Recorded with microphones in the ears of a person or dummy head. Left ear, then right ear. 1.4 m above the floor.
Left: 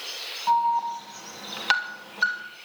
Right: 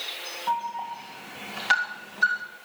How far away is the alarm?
About 3.5 m.